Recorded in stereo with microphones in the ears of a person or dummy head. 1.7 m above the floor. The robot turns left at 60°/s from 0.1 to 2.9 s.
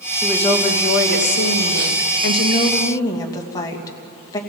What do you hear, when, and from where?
0.2 s a woman speaking: straight behind, 2.5 m; by 4.4 s 20° left, 2.5 m